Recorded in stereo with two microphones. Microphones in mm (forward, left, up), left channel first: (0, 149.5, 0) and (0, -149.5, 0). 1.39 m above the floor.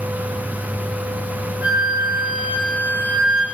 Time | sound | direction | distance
1.6 | a flute | 45° left (ahead or behind) | 3.5 m